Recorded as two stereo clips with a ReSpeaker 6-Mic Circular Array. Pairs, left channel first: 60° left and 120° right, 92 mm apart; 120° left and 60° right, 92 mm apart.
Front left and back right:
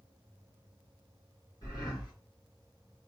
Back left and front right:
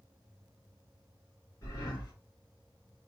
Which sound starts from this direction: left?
Breathing, at 1.6 s.